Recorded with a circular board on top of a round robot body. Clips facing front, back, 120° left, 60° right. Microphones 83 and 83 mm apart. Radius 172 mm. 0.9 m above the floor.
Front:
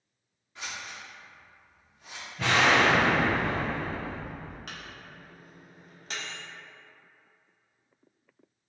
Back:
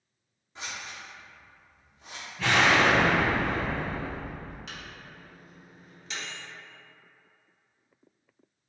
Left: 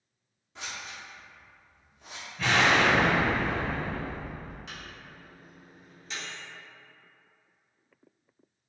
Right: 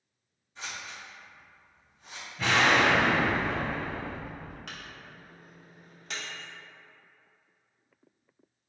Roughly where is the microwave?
Ahead right.